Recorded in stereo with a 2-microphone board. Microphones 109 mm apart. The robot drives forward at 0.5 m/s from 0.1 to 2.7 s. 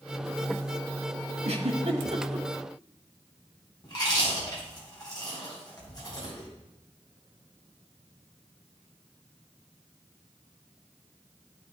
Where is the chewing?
40° left (ahead or behind), 4 m.